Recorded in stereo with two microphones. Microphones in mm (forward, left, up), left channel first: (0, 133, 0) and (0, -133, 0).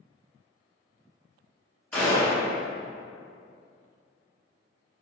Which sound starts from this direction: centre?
A gunshot, at 1.9 s.